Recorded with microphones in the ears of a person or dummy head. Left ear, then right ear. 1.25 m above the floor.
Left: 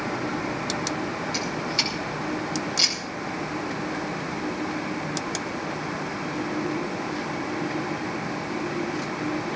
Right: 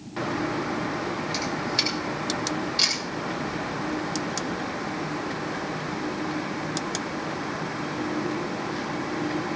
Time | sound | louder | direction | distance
1.3 | a camera shutter | even | centre (ahead or behind) | 7 m